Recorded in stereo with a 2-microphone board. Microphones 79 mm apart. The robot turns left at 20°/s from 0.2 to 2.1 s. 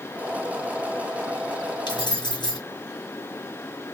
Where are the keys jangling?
70° left (ahead or behind), 2.5 m.